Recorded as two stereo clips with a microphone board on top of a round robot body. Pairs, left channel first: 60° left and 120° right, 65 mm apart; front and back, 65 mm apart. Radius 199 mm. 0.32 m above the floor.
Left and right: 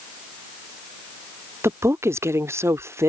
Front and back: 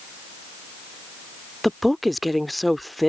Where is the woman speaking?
90° right.